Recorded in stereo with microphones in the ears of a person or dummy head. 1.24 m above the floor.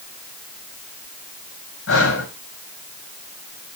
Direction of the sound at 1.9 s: 70° left (ahead or behind).